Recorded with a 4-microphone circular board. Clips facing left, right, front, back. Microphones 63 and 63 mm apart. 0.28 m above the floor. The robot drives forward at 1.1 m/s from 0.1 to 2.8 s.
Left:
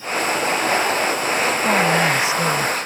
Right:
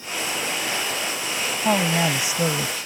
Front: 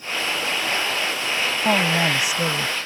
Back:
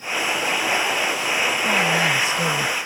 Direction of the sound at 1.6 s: 20° right.